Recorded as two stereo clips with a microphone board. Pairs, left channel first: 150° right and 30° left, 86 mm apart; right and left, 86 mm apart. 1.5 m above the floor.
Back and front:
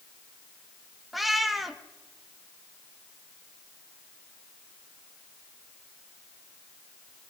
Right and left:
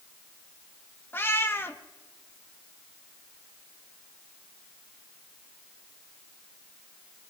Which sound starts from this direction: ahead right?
A cat meowing, at 1.1 s.